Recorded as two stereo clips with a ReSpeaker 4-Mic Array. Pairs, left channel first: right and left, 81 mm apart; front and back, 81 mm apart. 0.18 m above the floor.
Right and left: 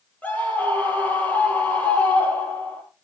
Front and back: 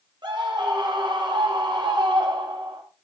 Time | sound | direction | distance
0.2 | a scream | 160° right | 6.5 m